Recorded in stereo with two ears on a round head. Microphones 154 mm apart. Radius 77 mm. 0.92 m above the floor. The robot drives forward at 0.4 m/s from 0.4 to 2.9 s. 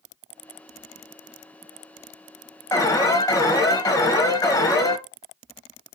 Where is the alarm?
20° left (ahead or behind), 0.8 m.